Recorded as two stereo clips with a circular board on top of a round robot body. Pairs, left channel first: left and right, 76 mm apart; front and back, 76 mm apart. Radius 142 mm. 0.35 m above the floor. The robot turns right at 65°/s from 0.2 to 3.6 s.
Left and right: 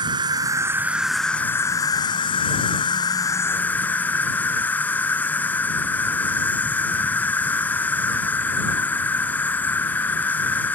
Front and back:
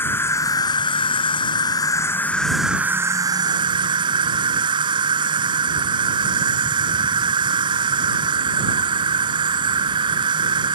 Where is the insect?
65° right; by 10.8 s 160° left.